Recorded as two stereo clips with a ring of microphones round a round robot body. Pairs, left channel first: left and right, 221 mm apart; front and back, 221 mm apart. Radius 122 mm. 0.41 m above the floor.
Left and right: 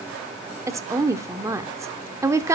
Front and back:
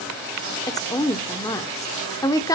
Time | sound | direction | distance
0.7 | a woman speaking | 40° right | 0.8 m